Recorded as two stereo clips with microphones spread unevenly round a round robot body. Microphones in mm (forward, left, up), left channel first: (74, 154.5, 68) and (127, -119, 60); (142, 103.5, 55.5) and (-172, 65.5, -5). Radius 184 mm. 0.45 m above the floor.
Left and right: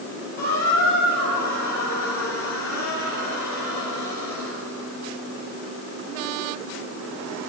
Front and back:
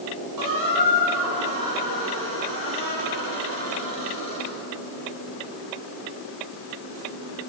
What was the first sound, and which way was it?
A squeak, 165° left.